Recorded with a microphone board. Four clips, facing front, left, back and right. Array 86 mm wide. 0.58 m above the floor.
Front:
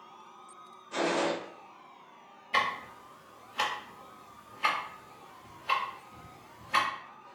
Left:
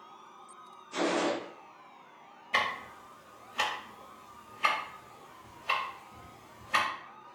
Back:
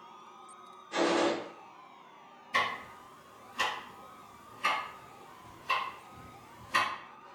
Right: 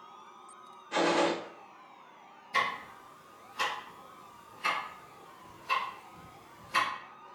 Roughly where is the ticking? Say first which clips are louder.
Even, front 2 dB; ahead left.